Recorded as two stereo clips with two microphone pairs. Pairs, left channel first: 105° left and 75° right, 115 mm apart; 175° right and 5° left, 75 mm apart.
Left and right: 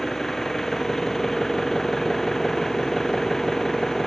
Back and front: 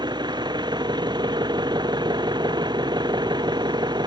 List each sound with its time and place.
0.0 s an engine running: 15° left